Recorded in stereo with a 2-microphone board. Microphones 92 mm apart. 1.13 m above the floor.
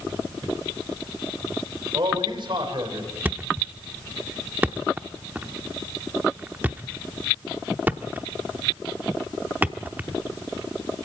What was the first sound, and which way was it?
A man speaking, 60° right (ahead or behind).